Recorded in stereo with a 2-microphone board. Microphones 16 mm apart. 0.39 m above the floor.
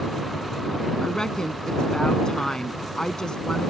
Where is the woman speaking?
60° left (ahead or behind).